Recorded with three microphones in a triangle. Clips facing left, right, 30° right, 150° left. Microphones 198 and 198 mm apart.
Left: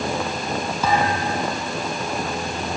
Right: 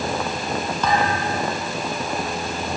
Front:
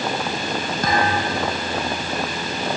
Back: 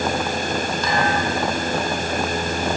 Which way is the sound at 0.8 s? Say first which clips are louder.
Left 1 dB, front 2 dB; 10° left.